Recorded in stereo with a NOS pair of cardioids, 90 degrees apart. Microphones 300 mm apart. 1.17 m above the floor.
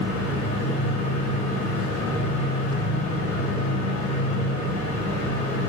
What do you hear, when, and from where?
0.0 s a fan: 70° left, 1.0 m